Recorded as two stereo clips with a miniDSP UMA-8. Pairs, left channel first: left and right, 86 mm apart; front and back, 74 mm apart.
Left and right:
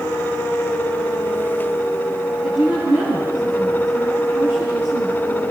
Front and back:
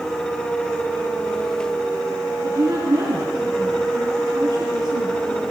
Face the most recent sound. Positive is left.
turn(degrees=-155)